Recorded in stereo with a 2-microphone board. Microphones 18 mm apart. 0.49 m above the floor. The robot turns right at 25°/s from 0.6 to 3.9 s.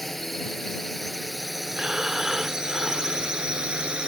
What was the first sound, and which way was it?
A drone, 20° left (ahead or behind).